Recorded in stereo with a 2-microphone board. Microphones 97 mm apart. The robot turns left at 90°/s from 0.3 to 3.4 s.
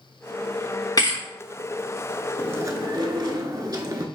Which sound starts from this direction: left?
A thud, at 1.0 s.